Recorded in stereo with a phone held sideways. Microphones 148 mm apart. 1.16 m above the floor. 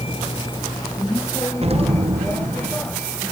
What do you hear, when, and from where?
0.0 s a vehicle: 40° left (ahead or behind); by 3.3 s 10° left (ahead or behind)
1.6 s an explosion: 45° right (ahead or behind)